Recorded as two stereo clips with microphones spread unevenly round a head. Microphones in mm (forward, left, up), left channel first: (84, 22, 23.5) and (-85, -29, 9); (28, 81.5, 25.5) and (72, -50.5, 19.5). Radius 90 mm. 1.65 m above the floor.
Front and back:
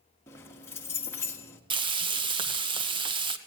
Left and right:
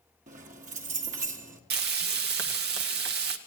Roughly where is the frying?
Right.